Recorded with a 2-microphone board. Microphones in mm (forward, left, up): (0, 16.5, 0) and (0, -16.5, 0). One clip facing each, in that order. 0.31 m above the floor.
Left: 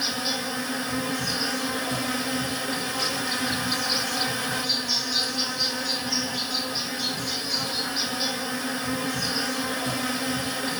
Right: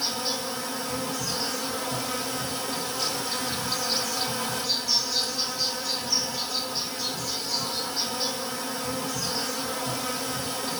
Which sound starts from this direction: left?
An insect, at 0.0 s.